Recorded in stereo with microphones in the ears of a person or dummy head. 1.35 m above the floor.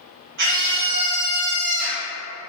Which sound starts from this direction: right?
A scream, at 0.4 s.